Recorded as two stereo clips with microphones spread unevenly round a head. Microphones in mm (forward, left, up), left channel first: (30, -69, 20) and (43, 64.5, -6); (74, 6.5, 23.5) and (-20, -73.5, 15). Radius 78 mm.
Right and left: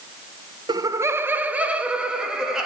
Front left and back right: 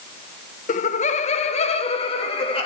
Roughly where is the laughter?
Ahead left.